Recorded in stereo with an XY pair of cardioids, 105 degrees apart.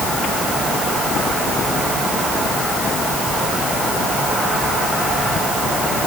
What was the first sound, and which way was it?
Only background noise.